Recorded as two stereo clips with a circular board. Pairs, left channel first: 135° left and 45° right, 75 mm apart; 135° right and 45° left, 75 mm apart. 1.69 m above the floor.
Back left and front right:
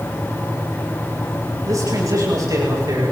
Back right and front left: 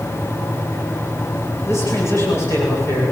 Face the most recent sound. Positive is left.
turn(degrees=-80)